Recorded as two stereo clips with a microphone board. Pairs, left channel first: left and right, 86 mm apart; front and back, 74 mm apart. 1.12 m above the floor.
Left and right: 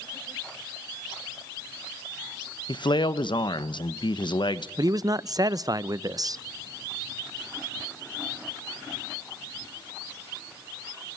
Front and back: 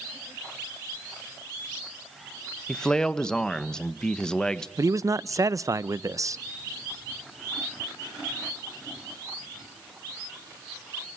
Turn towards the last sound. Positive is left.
turn(degrees=-135)